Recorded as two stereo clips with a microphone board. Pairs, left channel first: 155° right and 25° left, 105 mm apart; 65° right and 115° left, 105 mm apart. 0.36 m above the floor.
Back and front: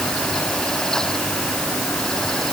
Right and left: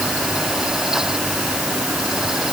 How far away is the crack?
I don't hear a crack.